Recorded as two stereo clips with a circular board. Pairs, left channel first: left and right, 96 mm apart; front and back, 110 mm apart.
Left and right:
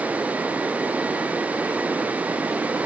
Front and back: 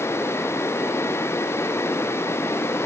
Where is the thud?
No thud in this recording.